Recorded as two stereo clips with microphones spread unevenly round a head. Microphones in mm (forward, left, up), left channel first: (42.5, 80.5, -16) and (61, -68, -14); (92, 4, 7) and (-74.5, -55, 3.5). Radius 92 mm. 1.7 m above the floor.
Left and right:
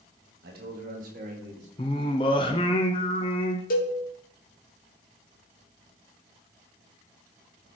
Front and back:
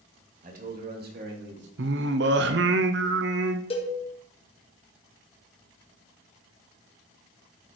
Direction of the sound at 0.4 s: 115° right.